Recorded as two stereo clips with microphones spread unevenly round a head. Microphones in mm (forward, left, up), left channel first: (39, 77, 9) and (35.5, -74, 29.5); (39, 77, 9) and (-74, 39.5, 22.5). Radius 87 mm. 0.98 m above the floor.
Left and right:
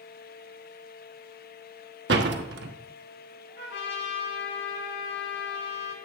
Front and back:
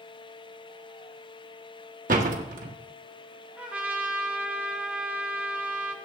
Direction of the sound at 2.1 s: 120° right.